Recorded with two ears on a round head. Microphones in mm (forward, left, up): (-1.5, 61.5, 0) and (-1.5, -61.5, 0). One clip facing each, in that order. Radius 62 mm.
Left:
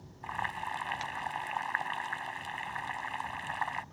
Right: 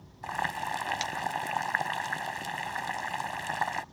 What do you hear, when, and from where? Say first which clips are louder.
0.2 s boiling: right 4 dB; 50° right (ahead or behind)